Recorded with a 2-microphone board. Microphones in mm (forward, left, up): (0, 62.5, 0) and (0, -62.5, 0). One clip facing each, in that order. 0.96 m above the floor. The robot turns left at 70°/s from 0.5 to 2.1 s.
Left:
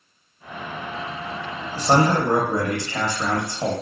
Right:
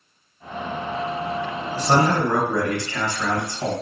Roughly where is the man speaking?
Left.